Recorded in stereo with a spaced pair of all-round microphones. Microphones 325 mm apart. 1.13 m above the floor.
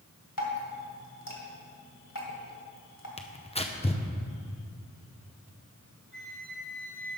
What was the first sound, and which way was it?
Dripping, 70° left (ahead or behind).